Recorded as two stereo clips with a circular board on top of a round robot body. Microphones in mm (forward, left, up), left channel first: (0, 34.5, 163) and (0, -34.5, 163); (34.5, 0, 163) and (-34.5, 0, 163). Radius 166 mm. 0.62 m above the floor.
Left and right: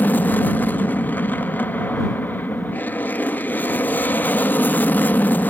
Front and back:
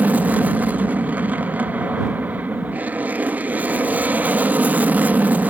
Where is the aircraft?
130° left.